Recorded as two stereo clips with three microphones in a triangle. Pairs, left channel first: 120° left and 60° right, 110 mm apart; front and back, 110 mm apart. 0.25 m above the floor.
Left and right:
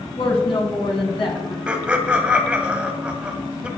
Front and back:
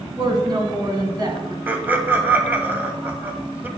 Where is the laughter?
125° right, 1.5 m.